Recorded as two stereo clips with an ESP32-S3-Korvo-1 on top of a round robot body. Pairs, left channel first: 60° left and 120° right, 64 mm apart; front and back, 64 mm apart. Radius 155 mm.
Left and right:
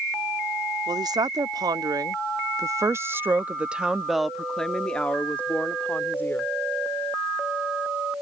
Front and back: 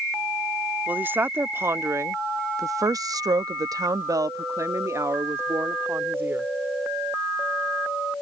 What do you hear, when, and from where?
0.9 s a woman speaking: 115° right; by 6.5 s 120° left